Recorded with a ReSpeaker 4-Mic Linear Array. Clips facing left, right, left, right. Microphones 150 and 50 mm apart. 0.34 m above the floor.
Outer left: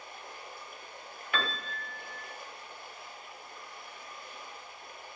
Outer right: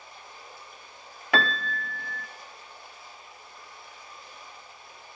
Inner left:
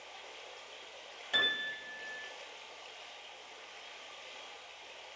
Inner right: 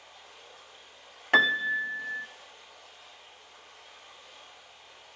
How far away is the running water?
About 2 m.